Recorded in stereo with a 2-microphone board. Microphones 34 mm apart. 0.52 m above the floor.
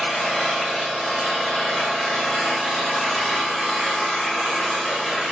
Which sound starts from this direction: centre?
An engine running, at 0.0 s.